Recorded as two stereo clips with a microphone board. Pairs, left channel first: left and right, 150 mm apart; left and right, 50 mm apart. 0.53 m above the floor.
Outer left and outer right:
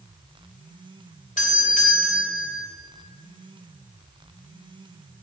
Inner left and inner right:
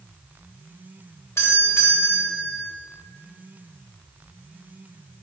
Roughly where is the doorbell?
Left.